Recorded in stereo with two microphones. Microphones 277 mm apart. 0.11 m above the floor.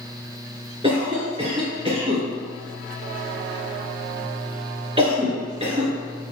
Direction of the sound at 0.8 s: 20° right (ahead or behind).